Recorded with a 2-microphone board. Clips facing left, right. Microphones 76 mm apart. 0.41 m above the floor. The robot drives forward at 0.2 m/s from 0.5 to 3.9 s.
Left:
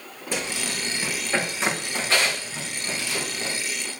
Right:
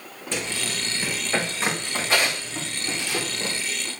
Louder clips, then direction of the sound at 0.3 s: Even; 10° left (ahead or behind).